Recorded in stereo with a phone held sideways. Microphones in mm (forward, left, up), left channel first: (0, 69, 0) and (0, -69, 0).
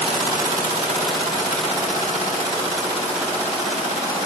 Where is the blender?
No blender in this recording.